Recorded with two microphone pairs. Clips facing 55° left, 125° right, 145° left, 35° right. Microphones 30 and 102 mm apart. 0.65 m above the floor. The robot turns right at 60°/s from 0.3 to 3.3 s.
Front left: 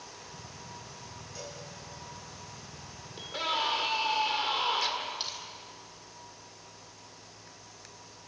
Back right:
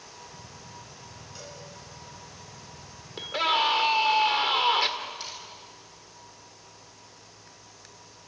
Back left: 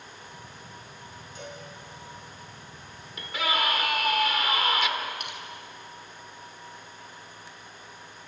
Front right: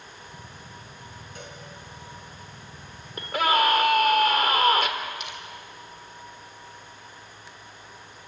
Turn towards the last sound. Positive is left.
turn(degrees=110)